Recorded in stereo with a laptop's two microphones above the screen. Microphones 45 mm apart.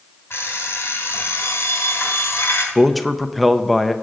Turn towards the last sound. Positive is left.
turn(degrees=0)  # may be behind; listen again after turning